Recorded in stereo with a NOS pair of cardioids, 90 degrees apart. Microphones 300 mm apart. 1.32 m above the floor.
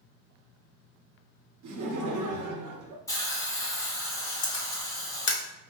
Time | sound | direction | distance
1.6 | laughter | 70° right | 0.9 m
3.1 | a hiss | 10° left | 0.9 m
4.4 | a camera shutter | 35° left | 1.0 m